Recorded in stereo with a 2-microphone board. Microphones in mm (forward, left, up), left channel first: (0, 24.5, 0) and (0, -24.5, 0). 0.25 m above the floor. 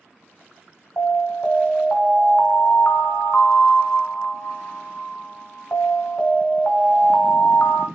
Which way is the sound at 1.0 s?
45° left (ahead or behind).